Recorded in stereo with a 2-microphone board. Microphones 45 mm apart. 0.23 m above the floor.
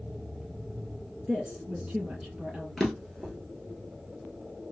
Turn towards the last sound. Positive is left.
turn(degrees=10)  # may be behind; listen again after turning